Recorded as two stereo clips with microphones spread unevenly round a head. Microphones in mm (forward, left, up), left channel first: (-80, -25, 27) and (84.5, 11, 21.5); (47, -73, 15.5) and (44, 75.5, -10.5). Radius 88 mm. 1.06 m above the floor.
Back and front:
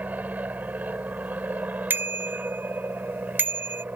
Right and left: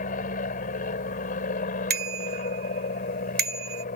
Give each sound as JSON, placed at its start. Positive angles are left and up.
{"t": 0.0, "sound": "an aircraft", "azimuth_deg": -70}
{"t": 1.9, "sound": "a bicycle bell", "azimuth_deg": 90}